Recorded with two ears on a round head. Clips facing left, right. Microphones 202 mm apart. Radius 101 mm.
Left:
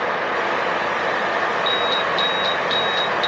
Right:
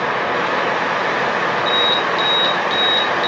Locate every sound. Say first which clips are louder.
1.7 s an alarm: right 3 dB; 5° right (ahead or behind), 6 m